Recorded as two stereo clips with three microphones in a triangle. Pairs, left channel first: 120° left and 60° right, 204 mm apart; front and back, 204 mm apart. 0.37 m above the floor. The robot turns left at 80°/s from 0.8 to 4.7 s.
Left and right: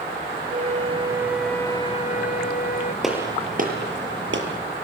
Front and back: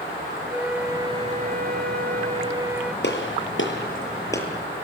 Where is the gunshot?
30° left, 7 m; by 4.5 s 80° right, 7 m.